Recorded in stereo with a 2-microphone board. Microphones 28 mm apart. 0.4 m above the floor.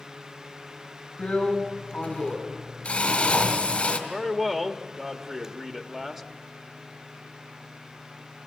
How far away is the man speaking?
About 1.2 m.